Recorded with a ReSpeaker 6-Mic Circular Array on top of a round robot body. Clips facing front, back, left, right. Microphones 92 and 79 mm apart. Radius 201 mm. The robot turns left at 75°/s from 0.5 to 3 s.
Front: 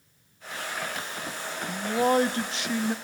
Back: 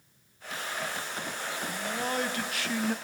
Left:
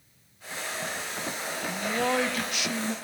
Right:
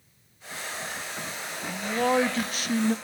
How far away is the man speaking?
About 0.9 m.